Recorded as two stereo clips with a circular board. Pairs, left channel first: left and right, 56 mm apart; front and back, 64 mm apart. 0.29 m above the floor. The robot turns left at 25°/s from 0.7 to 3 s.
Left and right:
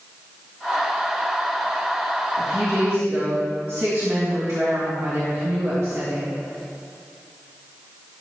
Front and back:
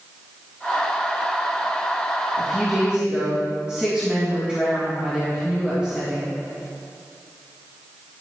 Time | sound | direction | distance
2.4 | a woman speaking | 90° right | 3 m